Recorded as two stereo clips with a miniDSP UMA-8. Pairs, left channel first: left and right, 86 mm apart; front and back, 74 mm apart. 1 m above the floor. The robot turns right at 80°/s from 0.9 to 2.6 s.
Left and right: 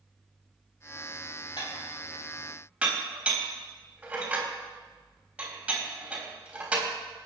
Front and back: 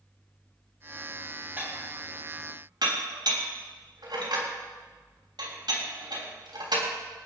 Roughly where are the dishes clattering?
Left.